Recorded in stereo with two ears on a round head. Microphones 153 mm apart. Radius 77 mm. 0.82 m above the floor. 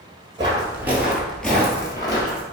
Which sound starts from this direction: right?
Footsteps, at 0.4 s.